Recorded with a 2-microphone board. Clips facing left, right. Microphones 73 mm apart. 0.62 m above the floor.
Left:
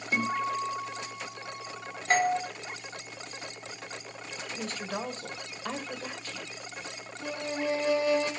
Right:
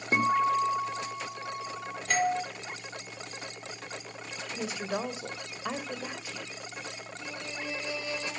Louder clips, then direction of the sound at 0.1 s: Right 5 dB; 40° right (ahead or behind).